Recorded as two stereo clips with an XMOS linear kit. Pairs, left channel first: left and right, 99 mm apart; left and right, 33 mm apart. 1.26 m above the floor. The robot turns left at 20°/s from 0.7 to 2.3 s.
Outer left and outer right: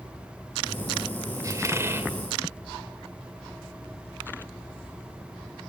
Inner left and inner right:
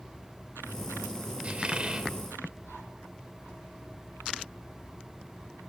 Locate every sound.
1.4 s a squeak: 35° right (ahead or behind), 1.7 m; by 2.1 s 25° right (ahead or behind), 1.7 m